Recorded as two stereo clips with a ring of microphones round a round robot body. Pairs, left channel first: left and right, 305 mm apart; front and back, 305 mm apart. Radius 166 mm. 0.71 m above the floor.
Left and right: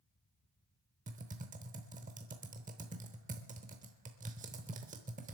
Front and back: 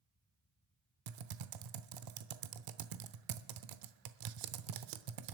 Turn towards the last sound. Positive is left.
turn(degrees=-160)